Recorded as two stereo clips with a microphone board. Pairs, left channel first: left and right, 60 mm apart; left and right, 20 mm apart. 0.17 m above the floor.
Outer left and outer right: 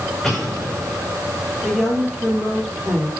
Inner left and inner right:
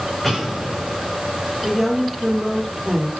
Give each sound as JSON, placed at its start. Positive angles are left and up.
{"t": 0.2, "sound": "an explosion", "side_deg": -5, "distance_m": 5.5}
{"t": 1.6, "sound": "a woman speaking", "side_deg": -5, "distance_m": 5.0}